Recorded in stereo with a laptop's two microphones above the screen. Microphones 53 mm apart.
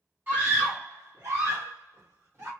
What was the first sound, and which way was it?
A scream, 40° right (ahead or behind).